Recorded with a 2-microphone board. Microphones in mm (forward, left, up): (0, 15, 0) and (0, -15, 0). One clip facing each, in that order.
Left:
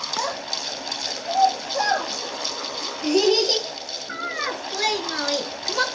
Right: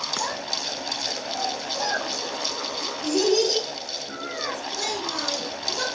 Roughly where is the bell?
I don't hear a bell.